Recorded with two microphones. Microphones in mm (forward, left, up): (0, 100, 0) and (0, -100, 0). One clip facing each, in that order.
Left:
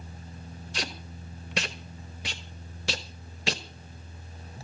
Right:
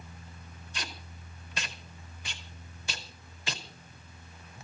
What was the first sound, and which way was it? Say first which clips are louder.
Tape being pulled: left 6 dB; 80° left.